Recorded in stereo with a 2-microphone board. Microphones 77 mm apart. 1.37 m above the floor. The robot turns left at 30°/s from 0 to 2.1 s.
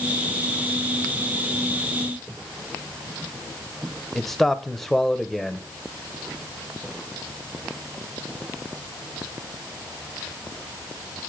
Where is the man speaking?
5° left (ahead or behind), 1.1 m.